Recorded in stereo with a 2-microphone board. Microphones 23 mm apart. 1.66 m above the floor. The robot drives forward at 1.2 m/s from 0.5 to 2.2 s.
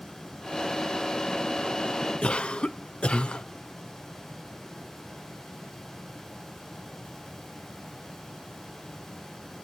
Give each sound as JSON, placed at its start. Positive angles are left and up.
{"t": 2.2, "sound": "a cough", "side_deg": 45, "distance_m": 0.5}